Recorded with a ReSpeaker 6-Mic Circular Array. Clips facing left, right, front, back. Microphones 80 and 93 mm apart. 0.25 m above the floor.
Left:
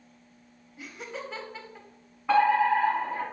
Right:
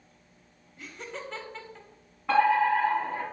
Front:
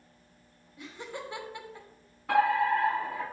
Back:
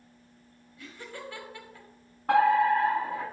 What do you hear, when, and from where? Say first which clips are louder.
0.8 s laughter: left 1 dB, front 2 dB; 15° left, 1.1 m
2.3 s a fire alarm: left 1 dB, back 3 dB; 170° left, 3.5 m